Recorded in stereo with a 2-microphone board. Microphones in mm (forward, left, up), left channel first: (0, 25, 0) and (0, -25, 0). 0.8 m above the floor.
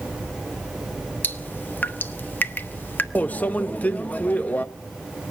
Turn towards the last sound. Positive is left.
turn(degrees=35)  # may be behind; listen again after turning